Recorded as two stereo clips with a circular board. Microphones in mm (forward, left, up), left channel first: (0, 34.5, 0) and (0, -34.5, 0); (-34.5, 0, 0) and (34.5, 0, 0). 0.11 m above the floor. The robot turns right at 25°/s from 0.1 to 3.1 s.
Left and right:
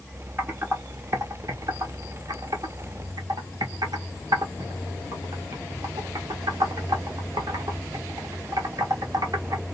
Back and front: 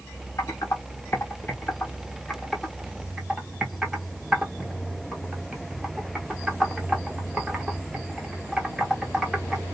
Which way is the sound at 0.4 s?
145° right.